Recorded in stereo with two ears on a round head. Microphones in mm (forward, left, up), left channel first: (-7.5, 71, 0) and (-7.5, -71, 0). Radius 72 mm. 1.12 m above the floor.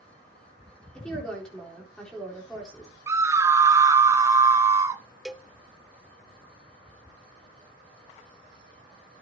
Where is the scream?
20° right (ahead or behind), 0.8 m.